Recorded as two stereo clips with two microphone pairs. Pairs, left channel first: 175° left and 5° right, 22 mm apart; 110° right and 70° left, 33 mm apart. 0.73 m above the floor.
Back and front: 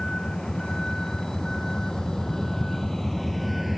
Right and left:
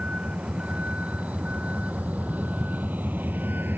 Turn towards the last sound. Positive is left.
turn(degrees=80)